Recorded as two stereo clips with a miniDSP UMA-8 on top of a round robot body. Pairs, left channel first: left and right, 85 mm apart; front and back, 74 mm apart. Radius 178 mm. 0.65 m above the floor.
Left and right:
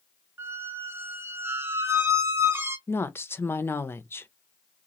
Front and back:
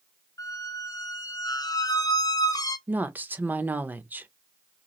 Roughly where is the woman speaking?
Behind left.